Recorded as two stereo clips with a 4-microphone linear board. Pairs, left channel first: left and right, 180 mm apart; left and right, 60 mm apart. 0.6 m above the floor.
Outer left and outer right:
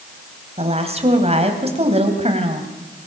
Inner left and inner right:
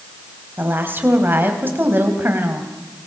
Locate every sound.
0.6 s a woman speaking: 35° right (ahead or behind), 3.5 m